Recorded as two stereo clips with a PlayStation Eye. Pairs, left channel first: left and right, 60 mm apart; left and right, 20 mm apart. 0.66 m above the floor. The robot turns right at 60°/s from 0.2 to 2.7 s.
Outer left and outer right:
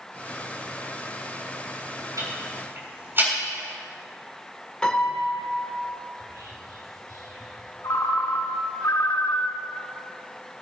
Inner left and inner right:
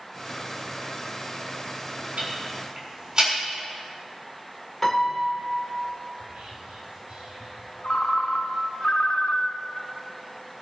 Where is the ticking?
70° right (ahead or behind), 7 m; by 3.3 s 40° right (ahead or behind), 7 m.